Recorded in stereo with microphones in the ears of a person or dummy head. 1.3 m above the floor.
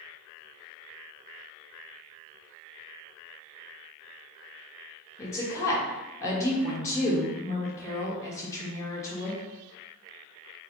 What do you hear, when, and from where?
5.2 s a woman speaking: 15° left (ahead or behind), 1.0 m